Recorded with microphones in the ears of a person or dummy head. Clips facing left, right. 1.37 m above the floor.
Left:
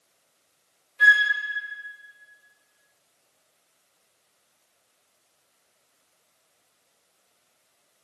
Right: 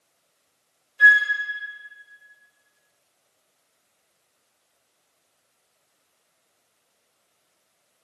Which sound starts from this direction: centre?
A flute, at 1.0 s.